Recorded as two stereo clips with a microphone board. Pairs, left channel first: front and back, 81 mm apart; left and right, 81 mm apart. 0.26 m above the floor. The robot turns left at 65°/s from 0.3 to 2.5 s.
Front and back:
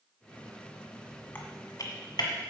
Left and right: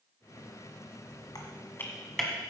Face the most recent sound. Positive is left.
turn(degrees=-15)